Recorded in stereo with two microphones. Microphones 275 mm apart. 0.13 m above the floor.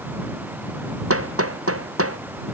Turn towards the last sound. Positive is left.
turn(degrees=-55)  # may be behind; listen again after turning